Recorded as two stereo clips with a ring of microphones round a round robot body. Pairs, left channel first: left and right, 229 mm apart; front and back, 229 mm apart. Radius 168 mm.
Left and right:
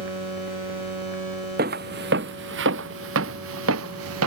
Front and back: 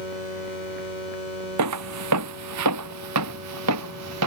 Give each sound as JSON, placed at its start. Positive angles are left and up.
{"t": 1.6, "sound": "footsteps", "azimuth_deg": -155}